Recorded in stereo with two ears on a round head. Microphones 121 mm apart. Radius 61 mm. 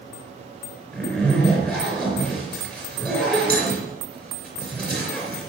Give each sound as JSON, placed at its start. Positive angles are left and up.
{"t": 0.9, "sound": "a zipper", "side_deg": 10, "distance_m": 4.0}